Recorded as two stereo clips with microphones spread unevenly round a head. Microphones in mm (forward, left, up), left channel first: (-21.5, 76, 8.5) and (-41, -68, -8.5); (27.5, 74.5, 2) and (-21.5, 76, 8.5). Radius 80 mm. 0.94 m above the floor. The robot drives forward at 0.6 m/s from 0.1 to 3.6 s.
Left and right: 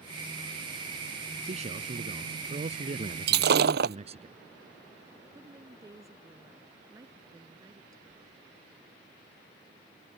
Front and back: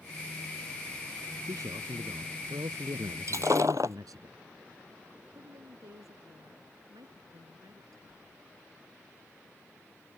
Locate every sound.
1.4 s a man speaking: 145° right
3.3 s breaking glass: 115° right
5.3 s a woman speaking: 165° right